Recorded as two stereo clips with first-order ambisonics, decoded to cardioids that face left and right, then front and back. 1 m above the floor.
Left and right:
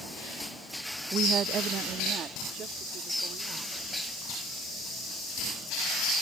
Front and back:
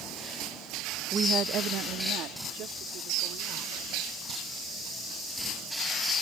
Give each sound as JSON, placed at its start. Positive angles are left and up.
{"t": 1.1, "sound": "a woman speaking", "azimuth_deg": -125}